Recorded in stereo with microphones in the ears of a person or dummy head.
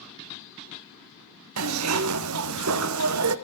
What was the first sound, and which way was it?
A zipper, 80° right.